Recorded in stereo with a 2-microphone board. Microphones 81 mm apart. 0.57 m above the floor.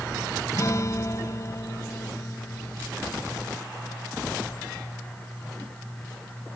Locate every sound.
0.5 s a guitar: 45° left (ahead or behind)